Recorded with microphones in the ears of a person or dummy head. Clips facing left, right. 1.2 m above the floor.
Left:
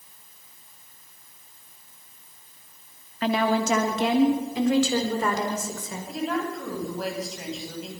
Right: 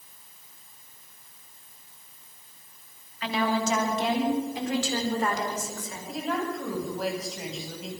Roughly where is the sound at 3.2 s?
Left.